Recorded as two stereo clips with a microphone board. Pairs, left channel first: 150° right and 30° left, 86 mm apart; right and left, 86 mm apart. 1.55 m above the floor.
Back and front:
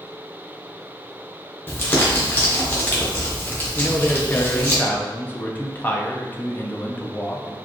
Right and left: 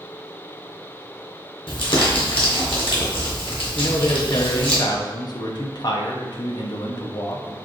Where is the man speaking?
85° right, 0.6 m.